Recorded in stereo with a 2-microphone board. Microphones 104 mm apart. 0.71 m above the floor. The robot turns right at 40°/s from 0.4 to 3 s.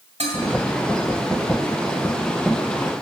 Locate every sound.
0.2 s dishes clattering: 85° right, 2.0 m